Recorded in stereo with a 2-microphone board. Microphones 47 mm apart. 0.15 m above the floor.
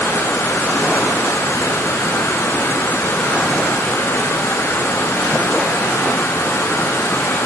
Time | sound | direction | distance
0.0 | running water | 85° left | 3.5 m